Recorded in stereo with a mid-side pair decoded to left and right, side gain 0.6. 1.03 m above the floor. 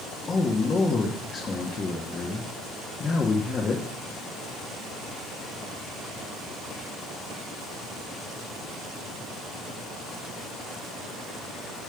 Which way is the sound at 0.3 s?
35° left.